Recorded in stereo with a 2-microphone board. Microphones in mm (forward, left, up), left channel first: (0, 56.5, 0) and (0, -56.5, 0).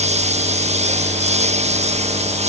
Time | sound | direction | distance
0.0 | a lawn mower | 75° right (ahead or behind) | ?